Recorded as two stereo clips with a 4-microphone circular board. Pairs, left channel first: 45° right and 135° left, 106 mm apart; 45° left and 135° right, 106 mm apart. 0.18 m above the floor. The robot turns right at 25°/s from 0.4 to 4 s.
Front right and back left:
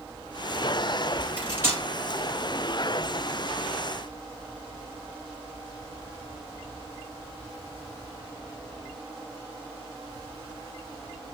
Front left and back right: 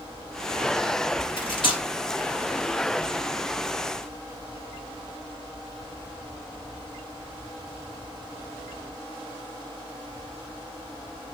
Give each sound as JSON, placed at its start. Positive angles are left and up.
{"t": 1.4, "sound": "cutlery clinking", "azimuth_deg": 60, "distance_m": 1.7}